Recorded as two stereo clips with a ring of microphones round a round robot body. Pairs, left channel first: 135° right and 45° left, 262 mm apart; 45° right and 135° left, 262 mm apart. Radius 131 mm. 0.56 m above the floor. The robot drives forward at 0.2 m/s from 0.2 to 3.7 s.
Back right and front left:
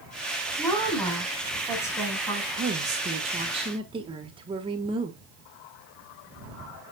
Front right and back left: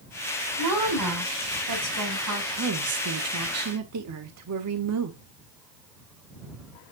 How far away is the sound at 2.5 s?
About 1.2 m.